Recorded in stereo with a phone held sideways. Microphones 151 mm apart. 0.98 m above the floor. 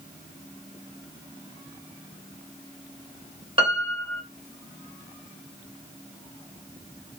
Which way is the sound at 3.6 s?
35° right (ahead or behind).